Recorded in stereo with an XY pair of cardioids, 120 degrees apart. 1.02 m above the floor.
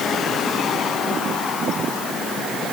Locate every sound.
Only background noise.